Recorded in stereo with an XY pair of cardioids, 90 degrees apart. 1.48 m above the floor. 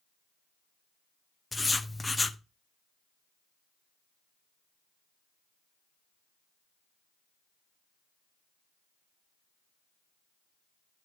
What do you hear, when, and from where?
1.5 s writing: 20° left, 0.5 m